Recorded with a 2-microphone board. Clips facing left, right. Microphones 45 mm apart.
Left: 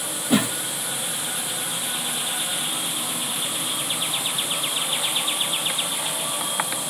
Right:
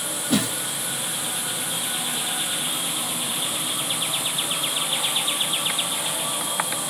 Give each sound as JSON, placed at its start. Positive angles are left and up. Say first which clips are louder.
{"t": 0.3, "sound": "a whoosh", "louder": "left 2 dB", "side_deg": 25, "distance_m": 1.0}